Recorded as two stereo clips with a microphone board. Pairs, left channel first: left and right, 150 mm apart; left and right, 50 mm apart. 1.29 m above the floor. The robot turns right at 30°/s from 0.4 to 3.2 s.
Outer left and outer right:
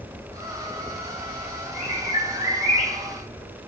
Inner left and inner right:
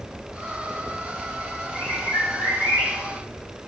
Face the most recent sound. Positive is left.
turn(degrees=100)